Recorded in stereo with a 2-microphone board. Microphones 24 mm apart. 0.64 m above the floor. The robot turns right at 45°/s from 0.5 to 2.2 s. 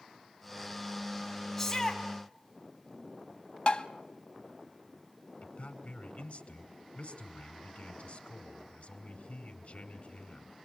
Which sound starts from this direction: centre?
A shout, at 1.6 s.